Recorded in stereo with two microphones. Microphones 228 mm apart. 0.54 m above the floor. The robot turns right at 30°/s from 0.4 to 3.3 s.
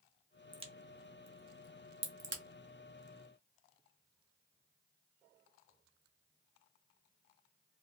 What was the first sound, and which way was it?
A crack, 20° right (ahead or behind).